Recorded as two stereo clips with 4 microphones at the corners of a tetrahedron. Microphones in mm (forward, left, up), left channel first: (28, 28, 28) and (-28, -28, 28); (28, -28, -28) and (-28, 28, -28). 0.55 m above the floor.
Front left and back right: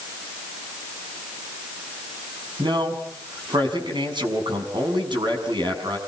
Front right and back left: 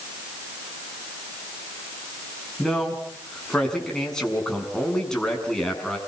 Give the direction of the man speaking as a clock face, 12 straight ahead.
4 o'clock.